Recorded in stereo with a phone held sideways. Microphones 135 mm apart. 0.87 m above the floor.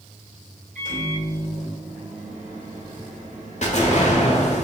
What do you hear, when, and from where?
0.8 s a microwave: 85° right, 1.8 m
3.6 s an explosion: 60° left (ahead or behind), 1.1 m